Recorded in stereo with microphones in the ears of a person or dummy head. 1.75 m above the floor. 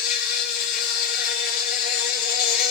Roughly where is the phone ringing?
I don't hear a phone ringing.